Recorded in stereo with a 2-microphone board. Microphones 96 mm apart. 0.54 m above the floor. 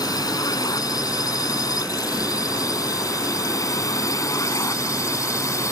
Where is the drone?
40° left (ahead or behind); by 5.7 s 35° left (ahead or behind).